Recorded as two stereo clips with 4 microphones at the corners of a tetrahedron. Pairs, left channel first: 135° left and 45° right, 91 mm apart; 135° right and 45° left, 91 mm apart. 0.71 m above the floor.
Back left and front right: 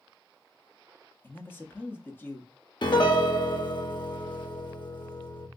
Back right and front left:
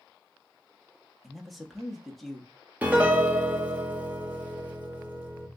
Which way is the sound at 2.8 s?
115° left.